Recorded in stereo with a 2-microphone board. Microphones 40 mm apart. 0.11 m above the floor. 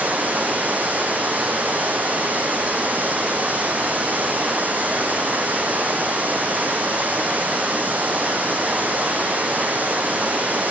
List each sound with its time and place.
0.0 s running water: 45° right (ahead or behind), 0.8 m